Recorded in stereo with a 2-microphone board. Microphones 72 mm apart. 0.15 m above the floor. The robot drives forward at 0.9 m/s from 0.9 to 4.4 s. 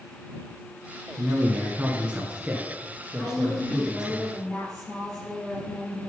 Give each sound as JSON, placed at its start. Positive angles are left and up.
{"t": 1.2, "sound": "a man speaking", "side_deg": -20, "distance_m": 1.2}
{"t": 3.2, "sound": "a woman speaking", "side_deg": 10, "distance_m": 2.0}